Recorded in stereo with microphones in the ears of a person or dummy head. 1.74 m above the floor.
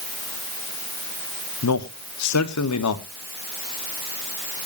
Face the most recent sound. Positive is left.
turn(degrees=85)